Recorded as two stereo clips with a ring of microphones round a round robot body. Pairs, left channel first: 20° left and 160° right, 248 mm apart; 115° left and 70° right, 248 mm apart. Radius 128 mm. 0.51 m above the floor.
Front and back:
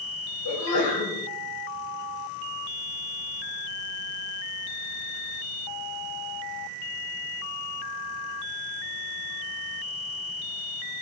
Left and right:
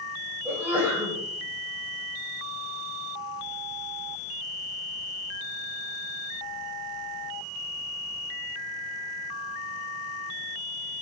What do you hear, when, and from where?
0.5 s a sneeze: 15° left, 3 m